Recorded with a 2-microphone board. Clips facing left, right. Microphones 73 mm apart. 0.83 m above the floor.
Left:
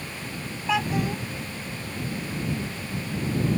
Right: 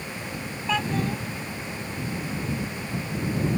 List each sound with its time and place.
0.7 s a child speaking: 10° left (ahead or behind)